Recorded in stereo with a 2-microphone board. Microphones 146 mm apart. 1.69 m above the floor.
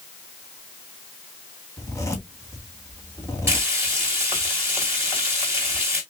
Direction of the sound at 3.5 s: 15° right (ahead or behind).